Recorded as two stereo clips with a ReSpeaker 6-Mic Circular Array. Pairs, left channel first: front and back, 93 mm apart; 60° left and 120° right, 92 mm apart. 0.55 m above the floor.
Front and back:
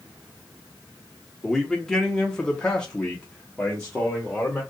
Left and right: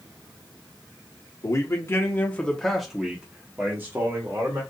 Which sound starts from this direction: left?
A man speaking, at 1.4 s.